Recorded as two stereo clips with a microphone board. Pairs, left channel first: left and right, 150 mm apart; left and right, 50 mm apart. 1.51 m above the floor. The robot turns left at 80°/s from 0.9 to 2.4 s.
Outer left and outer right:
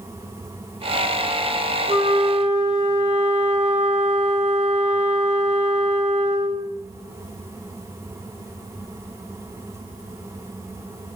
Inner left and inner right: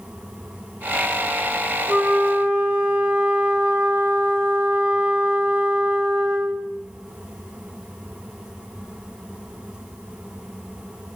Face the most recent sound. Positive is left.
turn(degrees=-95)